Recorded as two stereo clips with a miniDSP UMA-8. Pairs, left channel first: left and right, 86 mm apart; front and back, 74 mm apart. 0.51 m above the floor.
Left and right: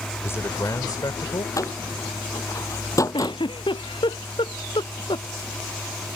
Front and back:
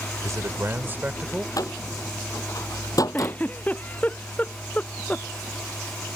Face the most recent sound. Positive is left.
turn(degrees=70)